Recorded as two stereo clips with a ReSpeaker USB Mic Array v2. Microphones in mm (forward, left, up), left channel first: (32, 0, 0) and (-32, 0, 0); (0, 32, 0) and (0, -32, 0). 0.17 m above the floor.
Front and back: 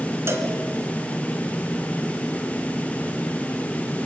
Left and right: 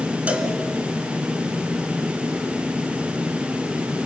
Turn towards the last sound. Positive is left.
turn(degrees=-155)